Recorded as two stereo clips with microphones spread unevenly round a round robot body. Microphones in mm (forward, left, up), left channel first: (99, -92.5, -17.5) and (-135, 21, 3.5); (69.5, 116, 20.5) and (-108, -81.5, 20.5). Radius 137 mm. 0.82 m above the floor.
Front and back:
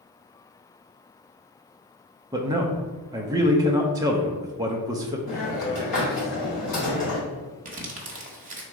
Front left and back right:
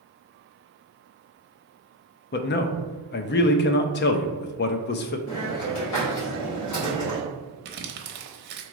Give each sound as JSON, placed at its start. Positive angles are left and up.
{"t": 2.3, "sound": "a man speaking", "azimuth_deg": 75, "distance_m": 0.5}
{"t": 5.3, "sound": "a hiss", "azimuth_deg": 35, "distance_m": 2.0}
{"t": 7.7, "sound": "crumpling", "azimuth_deg": -155, "distance_m": 0.9}